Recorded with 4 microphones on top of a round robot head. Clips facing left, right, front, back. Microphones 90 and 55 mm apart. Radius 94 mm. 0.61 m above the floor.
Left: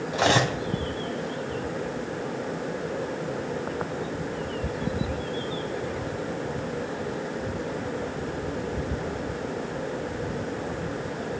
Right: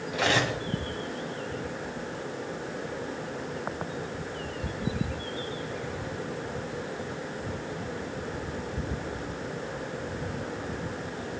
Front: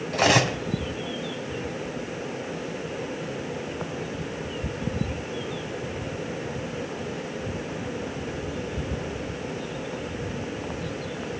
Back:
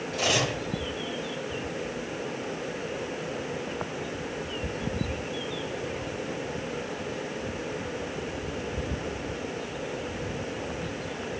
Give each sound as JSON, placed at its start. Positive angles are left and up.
{"t": 0.1, "sound": "cutlery clinking", "azimuth_deg": 25, "distance_m": 2.5}